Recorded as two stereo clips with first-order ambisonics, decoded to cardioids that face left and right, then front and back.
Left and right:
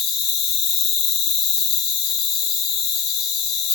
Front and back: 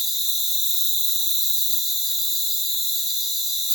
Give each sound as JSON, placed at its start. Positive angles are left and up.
{"t": 0.0, "sound": "an insect", "azimuth_deg": 95, "distance_m": 1.2}